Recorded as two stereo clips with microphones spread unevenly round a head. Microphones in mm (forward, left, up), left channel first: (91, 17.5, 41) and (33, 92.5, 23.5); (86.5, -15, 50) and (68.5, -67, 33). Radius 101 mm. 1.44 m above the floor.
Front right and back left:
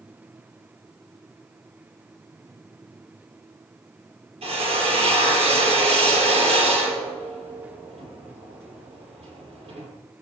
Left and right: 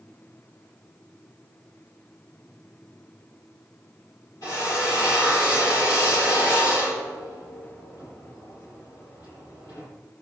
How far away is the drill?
About 4.5 m.